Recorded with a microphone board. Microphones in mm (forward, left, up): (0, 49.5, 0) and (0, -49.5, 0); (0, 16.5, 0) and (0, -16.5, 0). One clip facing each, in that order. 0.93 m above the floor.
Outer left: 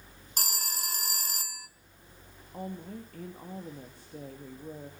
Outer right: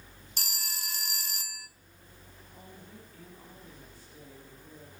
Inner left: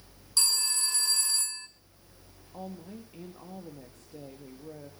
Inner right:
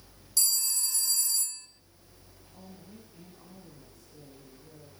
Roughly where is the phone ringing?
Left.